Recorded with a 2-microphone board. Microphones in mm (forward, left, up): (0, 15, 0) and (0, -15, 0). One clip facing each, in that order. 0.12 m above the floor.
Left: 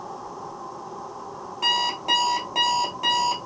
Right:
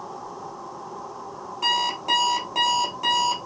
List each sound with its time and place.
1.6 s an alarm clock: 10° left (ahead or behind), 1.4 m